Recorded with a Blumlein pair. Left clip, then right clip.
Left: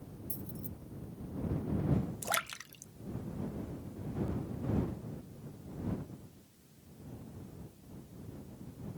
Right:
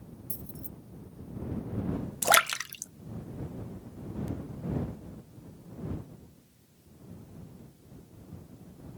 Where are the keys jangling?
15° right.